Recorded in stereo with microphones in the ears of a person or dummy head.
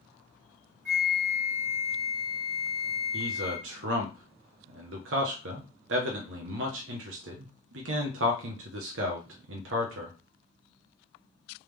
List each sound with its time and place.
0.8 s a flute: 60° right (ahead or behind), 2 m
3.1 s a man speaking: 75° right (ahead or behind), 0.7 m